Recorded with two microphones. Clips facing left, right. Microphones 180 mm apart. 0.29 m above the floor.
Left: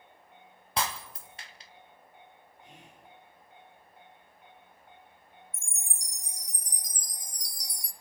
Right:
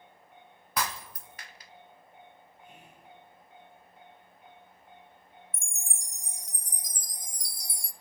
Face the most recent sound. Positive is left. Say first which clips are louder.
# right 2 dB
turn(degrees=-25)  # may be behind; listen again after turning